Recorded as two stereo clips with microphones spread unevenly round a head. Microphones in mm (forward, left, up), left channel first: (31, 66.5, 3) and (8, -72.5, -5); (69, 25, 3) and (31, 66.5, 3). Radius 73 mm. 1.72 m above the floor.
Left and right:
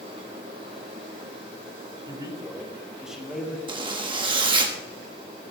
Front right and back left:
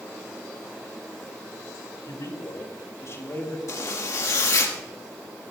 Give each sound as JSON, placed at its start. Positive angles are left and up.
{"t": 2.1, "sound": "a man speaking", "azimuth_deg": -40, "distance_m": 3.0}
{"t": 3.7, "sound": "a zipper", "azimuth_deg": -45, "distance_m": 1.6}